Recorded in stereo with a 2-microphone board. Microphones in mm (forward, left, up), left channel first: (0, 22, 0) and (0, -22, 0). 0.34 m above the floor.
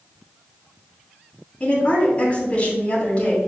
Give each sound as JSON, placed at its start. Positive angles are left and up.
{"t": 1.6, "sound": "a woman speaking", "side_deg": 30, "distance_m": 2.5}